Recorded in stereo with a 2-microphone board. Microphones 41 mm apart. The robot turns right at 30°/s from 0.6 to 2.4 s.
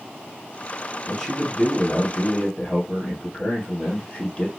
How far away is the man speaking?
About 1.9 m.